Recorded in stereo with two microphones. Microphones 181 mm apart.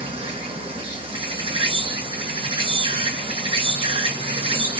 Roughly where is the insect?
Right.